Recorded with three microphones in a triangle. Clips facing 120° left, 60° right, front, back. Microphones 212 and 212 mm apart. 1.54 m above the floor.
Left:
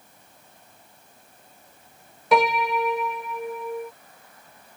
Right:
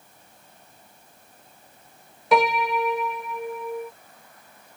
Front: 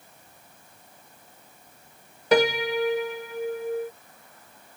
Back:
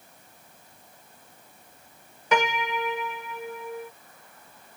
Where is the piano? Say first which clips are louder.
Even, front 6 dB; 30° left.